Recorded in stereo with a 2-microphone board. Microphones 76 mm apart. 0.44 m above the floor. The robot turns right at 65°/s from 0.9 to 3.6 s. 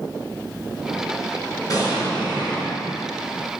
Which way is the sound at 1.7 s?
50° left.